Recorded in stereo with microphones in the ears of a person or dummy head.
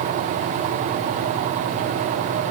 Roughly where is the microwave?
No microwave in this recording.